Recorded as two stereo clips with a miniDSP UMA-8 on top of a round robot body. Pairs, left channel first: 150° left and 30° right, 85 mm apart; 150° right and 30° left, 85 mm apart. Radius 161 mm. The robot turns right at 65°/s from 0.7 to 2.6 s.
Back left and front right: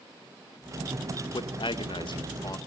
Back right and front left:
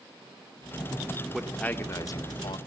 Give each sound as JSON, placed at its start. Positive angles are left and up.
{"t": 1.3, "sound": "a man speaking", "azimuth_deg": 115, "distance_m": 2.0}